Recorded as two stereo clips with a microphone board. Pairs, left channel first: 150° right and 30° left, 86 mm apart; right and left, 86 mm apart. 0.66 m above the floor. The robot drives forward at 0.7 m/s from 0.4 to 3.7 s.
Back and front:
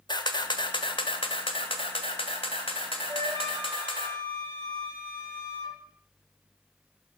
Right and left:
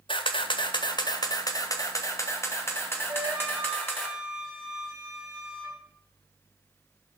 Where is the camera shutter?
115° right, 1.3 m; by 4.1 s 160° right, 3 m.